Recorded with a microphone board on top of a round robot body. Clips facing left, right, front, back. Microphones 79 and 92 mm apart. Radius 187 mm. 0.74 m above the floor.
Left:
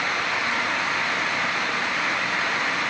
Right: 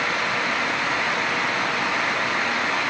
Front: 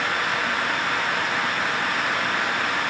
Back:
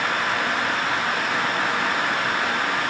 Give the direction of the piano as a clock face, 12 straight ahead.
No piano in this recording.